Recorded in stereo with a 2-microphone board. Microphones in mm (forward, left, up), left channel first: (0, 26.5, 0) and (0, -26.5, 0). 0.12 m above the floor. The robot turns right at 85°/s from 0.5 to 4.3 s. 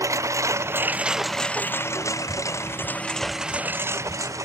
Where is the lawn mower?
75° right (ahead or behind); by 4.5 s 90° right.